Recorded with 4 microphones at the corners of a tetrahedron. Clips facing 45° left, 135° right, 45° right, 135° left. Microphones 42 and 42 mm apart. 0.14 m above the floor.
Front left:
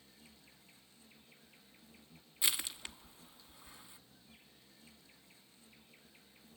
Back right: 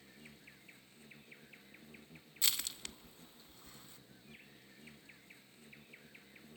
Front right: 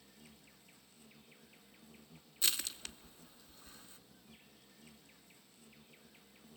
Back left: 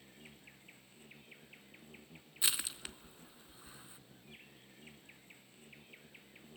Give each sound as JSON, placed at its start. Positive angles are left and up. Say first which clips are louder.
{"t": 0.0, "sound": "an insect", "louder": "back right 5 dB, back left 4 dB", "azimuth_deg": 180, "distance_m": 1.3}
{"t": 2.4, "sound": "crushing", "louder": "front left 1 dB, back left 1 dB", "azimuth_deg": 95, "distance_m": 0.8}